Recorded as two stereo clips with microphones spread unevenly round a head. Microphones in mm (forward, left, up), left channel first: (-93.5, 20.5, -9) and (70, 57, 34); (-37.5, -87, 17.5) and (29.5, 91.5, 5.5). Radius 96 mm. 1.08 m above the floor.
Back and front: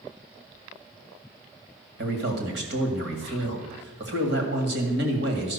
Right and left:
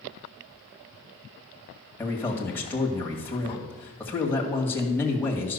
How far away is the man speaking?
About 2.0 m.